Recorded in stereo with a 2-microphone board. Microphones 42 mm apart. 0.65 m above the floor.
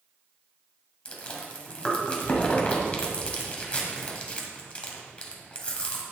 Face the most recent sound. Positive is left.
turn(degrees=30)  # may be behind; listen again after turning